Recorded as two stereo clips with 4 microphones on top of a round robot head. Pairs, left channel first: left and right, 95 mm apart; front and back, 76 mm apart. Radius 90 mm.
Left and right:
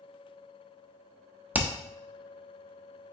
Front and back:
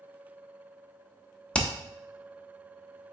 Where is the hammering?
55° right, 0.8 m.